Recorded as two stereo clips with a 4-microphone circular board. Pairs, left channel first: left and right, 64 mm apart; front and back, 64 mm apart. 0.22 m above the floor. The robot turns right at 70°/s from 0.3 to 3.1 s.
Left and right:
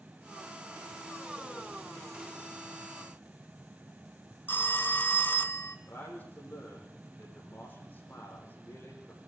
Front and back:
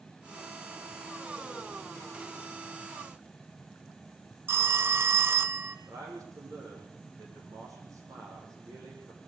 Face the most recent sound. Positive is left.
turn(degrees=150)